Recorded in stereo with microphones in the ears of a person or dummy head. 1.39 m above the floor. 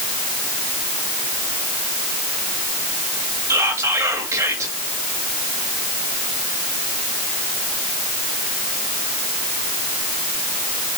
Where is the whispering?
20° right (ahead or behind), 2.5 m.